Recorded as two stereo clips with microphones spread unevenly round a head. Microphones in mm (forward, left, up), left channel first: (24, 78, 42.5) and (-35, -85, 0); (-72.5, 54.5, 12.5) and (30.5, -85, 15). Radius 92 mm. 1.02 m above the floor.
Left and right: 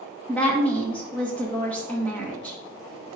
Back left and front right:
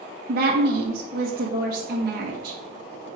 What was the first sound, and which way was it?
A woman speaking, 20° right.